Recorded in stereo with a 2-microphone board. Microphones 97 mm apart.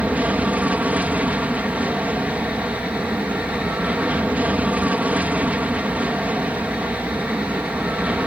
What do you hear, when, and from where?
0.0 s an aircraft: 15° right (ahead or behind)